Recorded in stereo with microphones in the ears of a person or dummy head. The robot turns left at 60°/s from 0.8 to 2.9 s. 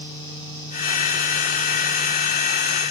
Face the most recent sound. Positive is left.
No sound to turn to.